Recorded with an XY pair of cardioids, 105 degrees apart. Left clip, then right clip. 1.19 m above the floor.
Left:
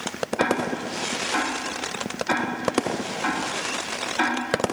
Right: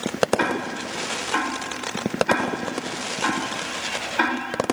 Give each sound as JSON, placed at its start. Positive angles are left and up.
{"t": 0.4, "sound": "ticking", "azimuth_deg": -20, "distance_m": 1.2}